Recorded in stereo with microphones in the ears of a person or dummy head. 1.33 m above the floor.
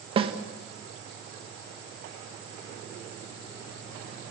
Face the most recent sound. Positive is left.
turn(degrees=-30)  # may be behind; listen again after turning